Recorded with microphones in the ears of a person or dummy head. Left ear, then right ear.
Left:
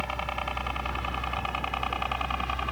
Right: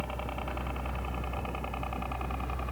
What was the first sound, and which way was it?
A helicopter, 65° left (ahead or behind).